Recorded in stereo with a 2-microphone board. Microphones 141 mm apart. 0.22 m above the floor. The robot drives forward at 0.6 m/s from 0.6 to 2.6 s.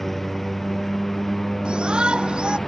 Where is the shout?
5° right (ahead or behind).